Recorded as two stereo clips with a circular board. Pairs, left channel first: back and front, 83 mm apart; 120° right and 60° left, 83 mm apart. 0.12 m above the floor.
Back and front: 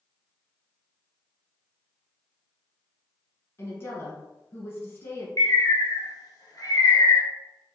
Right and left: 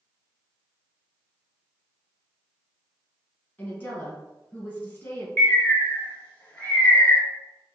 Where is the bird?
Straight behind, 0.8 m.